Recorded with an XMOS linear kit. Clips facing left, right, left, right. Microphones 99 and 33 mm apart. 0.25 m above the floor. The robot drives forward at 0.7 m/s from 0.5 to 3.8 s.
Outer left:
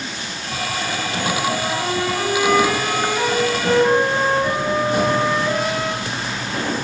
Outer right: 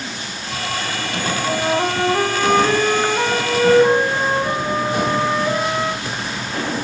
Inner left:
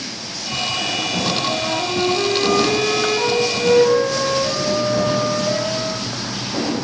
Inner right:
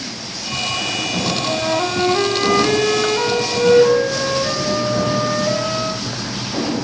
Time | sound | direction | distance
1.5 | a flute | 40° right (ahead or behind) | 0.9 m